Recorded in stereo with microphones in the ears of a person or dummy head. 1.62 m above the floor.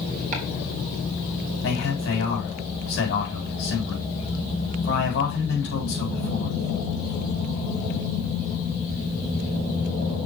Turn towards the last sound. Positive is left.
turn(degrees=70)  # may be behind; listen again after turning